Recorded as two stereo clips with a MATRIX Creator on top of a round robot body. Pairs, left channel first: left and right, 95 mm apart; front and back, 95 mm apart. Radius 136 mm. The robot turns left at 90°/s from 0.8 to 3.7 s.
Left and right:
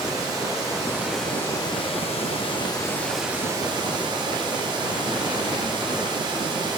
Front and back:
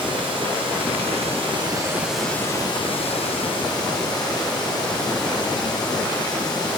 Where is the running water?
145° right, 1.9 m; by 6.8 s 50° right, 1.9 m.